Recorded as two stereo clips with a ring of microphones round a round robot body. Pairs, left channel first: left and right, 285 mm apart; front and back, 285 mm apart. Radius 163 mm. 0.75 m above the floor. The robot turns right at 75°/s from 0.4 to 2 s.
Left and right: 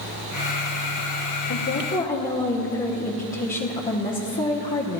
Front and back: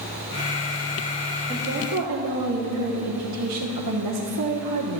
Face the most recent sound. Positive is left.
turn(degrees=150)